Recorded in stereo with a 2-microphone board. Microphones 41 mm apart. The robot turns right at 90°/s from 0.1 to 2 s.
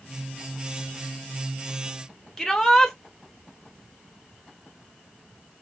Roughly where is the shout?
Centre.